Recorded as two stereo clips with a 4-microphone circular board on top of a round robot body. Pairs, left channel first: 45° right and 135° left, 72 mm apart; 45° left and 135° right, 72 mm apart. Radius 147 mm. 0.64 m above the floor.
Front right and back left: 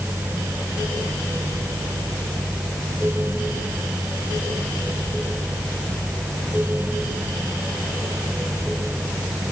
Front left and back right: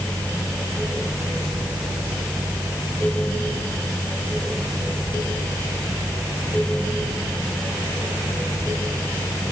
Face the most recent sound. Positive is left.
No sound to turn to.